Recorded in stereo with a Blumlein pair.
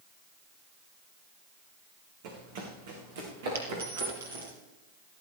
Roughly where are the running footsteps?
Ahead right.